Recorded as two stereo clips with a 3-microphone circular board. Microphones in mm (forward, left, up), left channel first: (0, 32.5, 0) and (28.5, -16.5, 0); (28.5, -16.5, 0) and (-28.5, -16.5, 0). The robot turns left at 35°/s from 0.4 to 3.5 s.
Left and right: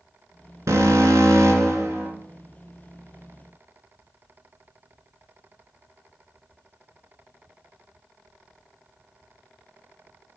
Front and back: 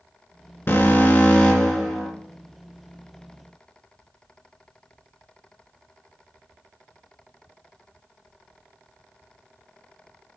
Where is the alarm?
40° right, 2.5 m; by 2.1 s 90° right, 2.5 m.